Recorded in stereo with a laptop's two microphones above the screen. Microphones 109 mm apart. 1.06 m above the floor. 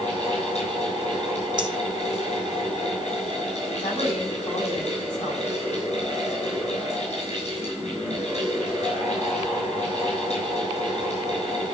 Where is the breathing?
40° right (ahead or behind), 1.3 m.